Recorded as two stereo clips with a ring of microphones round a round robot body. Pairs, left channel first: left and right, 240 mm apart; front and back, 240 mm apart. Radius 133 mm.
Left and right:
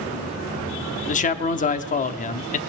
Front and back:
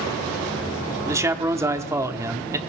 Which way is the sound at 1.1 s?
110° left.